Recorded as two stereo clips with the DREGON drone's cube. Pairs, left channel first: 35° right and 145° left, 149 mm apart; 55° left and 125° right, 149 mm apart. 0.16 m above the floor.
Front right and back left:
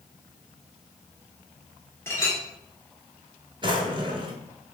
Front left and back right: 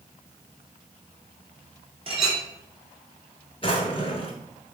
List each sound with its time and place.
2.1 s a clink: 100° right, 1.3 m
3.6 s a drawer: 100° left, 0.7 m